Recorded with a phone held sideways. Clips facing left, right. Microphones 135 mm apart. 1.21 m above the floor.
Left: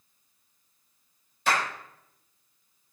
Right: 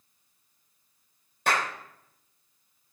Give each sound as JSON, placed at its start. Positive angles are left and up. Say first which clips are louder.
{"t": 1.5, "sound": "a clap", "louder": "even", "side_deg": -60, "distance_m": 3.5}